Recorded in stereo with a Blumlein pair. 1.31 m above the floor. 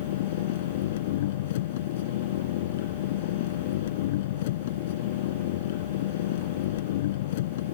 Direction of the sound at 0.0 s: 55° left.